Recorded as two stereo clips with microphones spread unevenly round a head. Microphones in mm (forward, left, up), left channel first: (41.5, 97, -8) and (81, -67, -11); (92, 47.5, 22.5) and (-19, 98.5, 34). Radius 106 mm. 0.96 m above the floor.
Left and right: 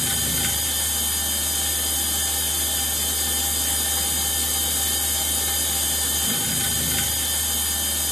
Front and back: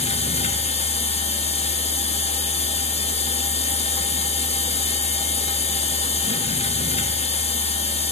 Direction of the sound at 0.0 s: 15° left.